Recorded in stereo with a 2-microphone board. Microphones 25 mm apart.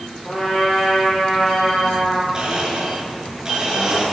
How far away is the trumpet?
About 9 m.